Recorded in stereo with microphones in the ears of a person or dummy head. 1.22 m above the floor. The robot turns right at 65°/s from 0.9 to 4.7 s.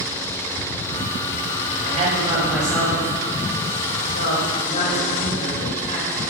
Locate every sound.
1.8 s a woman speaking: 55° right (ahead or behind), 4.5 m; by 6.3 s 45° left (ahead or behind), 4.5 m